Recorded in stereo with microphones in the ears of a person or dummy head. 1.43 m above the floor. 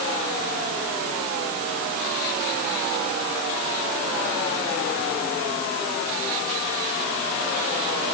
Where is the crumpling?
I don't hear crumpling.